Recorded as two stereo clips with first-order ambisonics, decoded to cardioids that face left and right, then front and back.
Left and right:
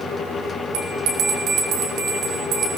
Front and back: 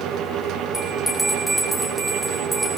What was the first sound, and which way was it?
A bell, 85° right.